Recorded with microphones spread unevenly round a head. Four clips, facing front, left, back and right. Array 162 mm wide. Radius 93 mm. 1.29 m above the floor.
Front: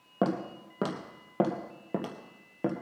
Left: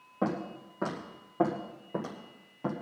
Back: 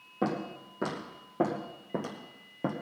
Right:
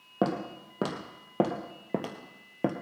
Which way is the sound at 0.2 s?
35° right.